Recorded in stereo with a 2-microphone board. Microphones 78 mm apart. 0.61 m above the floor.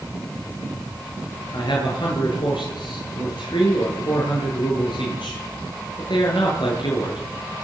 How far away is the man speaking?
About 8.5 m.